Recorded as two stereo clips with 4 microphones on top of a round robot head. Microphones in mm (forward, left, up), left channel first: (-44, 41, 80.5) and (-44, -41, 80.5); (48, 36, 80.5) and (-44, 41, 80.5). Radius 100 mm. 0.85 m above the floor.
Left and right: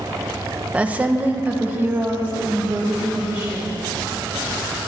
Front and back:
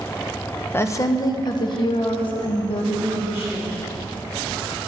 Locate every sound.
0.7 s a woman speaking: 30° right, 0.7 m; by 3.7 s 20° right, 2.5 m